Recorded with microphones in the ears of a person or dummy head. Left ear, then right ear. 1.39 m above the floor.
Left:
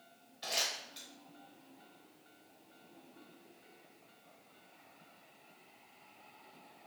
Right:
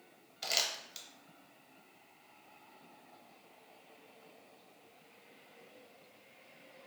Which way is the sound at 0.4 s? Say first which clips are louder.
Right 2 dB; 35° right (ahead or behind).